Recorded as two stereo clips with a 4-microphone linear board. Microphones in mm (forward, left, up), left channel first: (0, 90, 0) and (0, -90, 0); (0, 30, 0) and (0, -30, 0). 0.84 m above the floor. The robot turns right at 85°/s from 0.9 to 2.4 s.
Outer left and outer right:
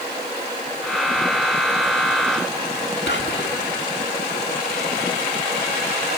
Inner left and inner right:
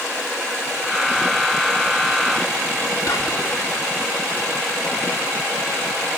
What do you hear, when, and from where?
3.1 s whispering: 80° left, 1.7 m